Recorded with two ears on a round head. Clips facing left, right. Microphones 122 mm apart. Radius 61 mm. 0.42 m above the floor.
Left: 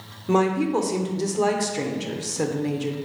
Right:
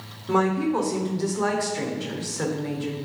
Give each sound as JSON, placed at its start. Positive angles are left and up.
{"t": 0.3, "sound": "a woman speaking", "side_deg": 25, "distance_m": 0.8}